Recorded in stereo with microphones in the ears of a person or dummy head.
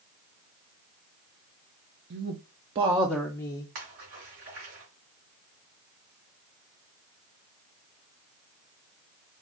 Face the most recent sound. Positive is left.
turn(degrees=-55)  # may be behind; listen again after turning